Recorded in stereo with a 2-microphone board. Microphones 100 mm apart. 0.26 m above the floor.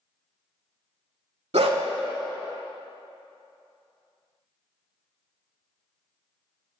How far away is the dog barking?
About 0.5 m.